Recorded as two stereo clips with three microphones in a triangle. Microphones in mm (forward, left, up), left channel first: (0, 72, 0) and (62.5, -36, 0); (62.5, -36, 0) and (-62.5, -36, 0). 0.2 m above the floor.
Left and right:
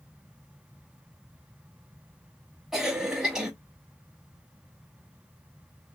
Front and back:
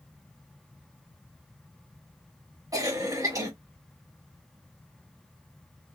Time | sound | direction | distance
2.7 | a cough | 140° right | 1.2 m